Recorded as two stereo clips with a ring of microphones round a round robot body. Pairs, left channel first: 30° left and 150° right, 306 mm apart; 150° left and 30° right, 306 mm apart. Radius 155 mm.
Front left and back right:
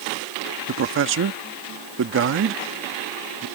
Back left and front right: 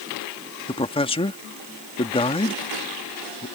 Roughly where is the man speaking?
Behind right.